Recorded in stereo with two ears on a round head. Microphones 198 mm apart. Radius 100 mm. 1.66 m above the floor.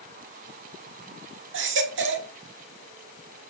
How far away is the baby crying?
About 2 m.